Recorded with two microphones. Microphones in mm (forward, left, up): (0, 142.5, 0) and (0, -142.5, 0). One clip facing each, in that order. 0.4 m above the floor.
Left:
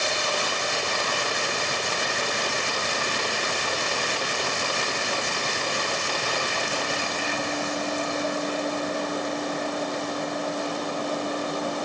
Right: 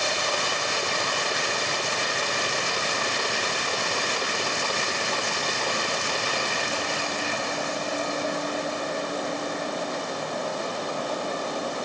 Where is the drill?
I don't hear a drill.